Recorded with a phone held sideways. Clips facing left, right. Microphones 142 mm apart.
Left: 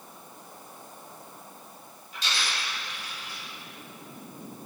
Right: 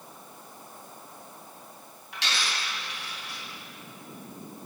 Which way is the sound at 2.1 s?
85° right.